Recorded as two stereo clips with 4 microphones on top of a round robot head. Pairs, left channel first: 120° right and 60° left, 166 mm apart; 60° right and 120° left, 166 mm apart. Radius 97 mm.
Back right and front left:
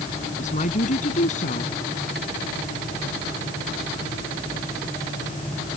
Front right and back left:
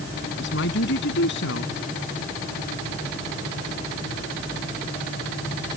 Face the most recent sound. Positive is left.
turn(degrees=-75)